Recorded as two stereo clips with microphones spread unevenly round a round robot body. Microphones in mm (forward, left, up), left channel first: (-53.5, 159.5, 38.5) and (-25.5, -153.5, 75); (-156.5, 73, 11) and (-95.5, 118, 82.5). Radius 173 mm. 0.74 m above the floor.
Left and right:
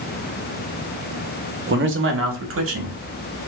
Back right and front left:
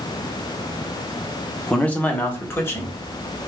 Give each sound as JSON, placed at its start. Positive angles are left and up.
{"t": 1.7, "sound": "a man speaking", "azimuth_deg": -140, "distance_m": 1.0}